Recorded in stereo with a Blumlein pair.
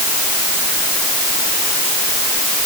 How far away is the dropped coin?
No dropped coin in this recording.